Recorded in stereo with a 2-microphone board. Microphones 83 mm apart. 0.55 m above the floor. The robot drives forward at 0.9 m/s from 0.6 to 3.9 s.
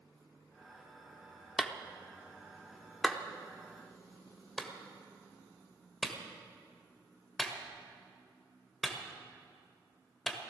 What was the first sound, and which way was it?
A clap, centre (ahead or behind).